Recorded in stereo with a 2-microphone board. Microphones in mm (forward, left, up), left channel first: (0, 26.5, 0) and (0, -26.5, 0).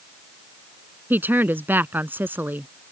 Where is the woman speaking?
40° right (ahead or behind).